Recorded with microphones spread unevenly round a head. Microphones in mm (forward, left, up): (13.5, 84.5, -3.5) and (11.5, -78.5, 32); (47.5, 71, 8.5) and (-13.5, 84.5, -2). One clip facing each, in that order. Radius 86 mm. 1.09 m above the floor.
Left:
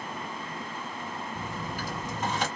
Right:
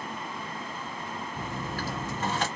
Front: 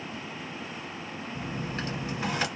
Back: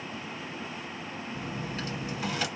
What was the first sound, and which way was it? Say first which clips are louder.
A dropped coin: right 1 dB, front 3 dB; 5° left.